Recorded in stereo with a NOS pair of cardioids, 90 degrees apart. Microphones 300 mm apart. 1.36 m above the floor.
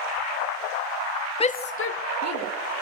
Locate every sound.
1.4 s a shout: 20° left, 0.8 m; by 2.5 s 60° left, 1.9 m